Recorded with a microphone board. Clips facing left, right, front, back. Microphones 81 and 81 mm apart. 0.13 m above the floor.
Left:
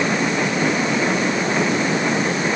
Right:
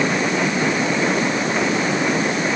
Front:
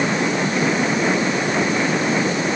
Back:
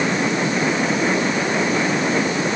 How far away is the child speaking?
No child speaking in this recording.